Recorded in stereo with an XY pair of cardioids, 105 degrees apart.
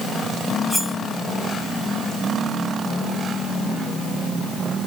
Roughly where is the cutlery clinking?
Ahead.